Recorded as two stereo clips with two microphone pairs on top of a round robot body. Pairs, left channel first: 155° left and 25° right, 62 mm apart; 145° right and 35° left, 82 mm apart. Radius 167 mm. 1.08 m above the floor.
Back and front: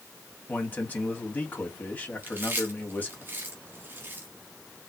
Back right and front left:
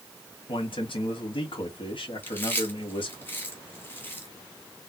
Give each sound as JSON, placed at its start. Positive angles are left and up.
{"t": 0.5, "sound": "a man speaking", "azimuth_deg": -145, "distance_m": 2.5}
{"t": 2.2, "sound": "chewing", "azimuth_deg": -75, "distance_m": 0.8}